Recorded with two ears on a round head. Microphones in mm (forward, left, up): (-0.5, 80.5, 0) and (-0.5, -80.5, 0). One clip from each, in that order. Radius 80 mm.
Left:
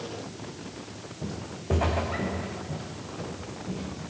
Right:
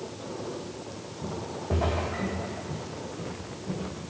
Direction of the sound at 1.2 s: 65° left (ahead or behind).